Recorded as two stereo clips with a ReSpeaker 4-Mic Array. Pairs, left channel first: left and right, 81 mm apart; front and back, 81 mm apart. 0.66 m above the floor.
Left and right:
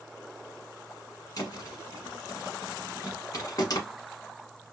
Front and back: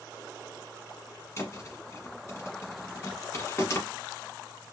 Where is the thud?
50° left, 1.1 m.